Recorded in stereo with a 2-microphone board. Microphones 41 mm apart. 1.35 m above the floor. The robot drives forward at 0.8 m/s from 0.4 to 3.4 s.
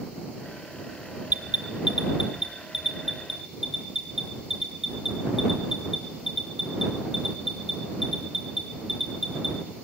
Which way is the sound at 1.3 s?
35° right (ahead or behind).